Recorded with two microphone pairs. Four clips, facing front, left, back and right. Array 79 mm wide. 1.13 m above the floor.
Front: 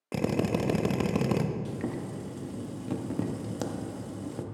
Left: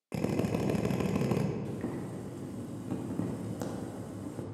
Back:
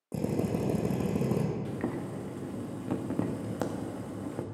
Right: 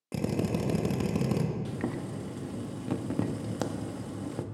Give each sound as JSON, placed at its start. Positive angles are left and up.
{"t": 0.1, "sound": "a drill", "azimuth_deg": 15, "distance_m": 0.7}
{"t": 1.6, "sound": "boiling", "azimuth_deg": -145, "distance_m": 0.6}